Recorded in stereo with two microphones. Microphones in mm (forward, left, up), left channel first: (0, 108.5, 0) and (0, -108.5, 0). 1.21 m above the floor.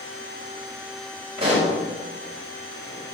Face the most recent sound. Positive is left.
turn(degrees=-25)  # may be behind; listen again after turning